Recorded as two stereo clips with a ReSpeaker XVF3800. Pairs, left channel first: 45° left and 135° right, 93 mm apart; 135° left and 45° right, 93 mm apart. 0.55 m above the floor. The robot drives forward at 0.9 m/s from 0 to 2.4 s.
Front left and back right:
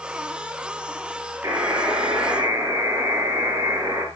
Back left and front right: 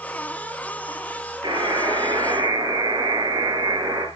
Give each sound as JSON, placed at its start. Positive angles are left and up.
{"t": 1.4, "sound": "a buzzer", "azimuth_deg": -85, "distance_m": 10.0}